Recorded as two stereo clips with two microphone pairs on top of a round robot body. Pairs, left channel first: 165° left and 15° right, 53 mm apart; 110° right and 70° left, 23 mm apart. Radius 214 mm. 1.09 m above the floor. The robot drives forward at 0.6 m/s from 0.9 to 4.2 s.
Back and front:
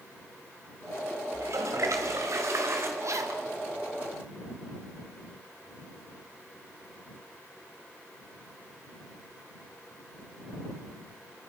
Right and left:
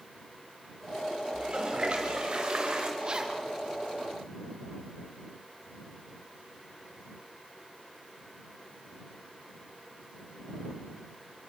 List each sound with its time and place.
1.3 s a toilet flushing: 15° left, 1.9 m; by 2.9 s 30° left, 1.1 m
3.0 s a zipper: 10° left, 2.5 m